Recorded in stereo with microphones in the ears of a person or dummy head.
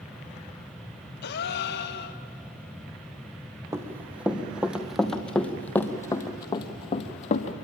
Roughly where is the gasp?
Left.